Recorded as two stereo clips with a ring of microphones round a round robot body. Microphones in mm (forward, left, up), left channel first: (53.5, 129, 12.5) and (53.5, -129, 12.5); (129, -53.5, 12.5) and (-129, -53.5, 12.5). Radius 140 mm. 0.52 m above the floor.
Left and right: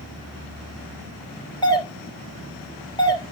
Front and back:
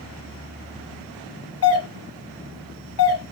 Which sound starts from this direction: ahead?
A doorbell, at 1.6 s.